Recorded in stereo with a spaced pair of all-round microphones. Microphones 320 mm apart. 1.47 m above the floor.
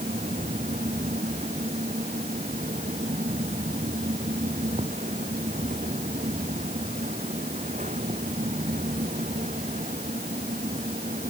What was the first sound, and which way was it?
A fan, 25° right (ahead or behind).